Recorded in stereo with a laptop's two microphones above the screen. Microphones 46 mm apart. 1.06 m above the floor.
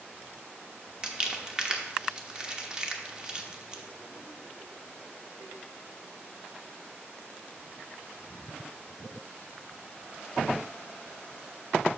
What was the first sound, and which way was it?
Crumpling, 20° right (ahead or behind).